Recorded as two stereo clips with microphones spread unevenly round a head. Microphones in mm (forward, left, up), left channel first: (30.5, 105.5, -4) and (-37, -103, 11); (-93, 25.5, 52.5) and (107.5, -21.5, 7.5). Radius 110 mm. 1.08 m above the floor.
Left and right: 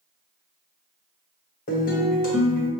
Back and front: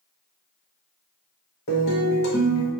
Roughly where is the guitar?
Behind left.